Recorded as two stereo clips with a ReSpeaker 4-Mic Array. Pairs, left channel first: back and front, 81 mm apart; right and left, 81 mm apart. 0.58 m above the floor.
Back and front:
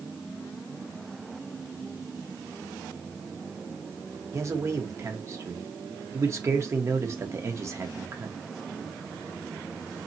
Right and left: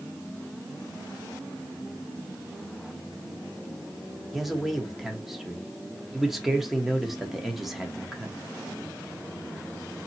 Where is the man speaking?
Straight ahead, 1.1 m.